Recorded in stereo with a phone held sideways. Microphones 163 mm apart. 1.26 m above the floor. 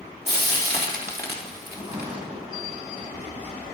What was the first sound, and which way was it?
Frying, 75° right (ahead or behind).